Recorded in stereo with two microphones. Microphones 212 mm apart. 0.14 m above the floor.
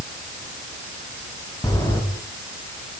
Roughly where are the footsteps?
Centre.